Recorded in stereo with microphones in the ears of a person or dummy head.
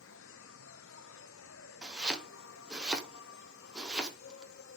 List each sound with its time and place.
0.0 s an insect: 70° left (ahead or behind), 0.7 m
1.8 s chopping: 5° right (ahead or behind), 1.2 m